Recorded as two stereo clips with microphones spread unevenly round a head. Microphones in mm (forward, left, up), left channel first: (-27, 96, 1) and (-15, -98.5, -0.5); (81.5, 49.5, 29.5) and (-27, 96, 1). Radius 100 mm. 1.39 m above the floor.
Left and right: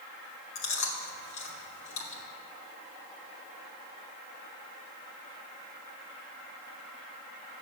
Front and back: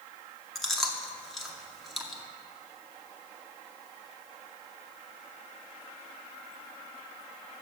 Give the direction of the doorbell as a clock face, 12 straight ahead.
No doorbell in this recording.